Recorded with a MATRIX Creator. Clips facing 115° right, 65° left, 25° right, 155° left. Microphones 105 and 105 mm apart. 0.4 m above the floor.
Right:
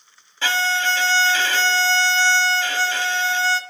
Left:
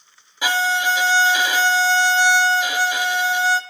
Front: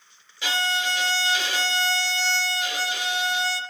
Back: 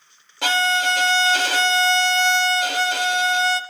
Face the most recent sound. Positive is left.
turn(degrees=145)